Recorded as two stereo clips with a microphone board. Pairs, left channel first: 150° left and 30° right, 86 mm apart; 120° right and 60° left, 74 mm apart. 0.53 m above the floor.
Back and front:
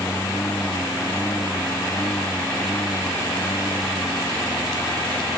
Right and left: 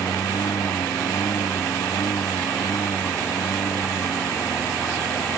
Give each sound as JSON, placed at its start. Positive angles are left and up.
{"t": 0.0, "sound": "a lawn mower", "azimuth_deg": -150}